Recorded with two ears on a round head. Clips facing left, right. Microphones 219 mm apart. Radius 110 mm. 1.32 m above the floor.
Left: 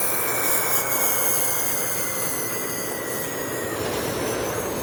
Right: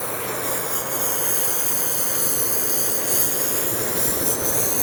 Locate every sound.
0.0 s a lawn mower: 20° left (ahead or behind); by 4.8 s 60° right (ahead or behind)